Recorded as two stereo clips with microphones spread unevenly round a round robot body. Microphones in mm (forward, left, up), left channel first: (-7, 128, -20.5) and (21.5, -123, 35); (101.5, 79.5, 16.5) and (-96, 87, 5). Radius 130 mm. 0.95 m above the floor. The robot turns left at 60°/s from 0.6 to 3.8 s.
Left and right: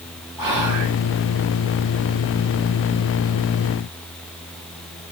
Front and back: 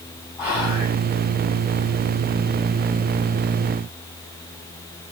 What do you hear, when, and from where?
0.4 s whispering: 95° right, 2.5 m; by 0.9 s 120° right, 2.5 m